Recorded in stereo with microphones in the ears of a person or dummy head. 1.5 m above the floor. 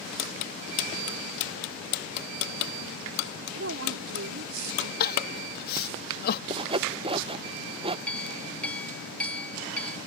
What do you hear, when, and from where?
3.5 s a woman speaking: 70° right (ahead or behind); by 4.9 s 80° right
5.0 s crying: 50° left (ahead or behind)
6.5 s sawing: 25° right (ahead or behind)
8.1 s a clink: 5° left (ahead or behind)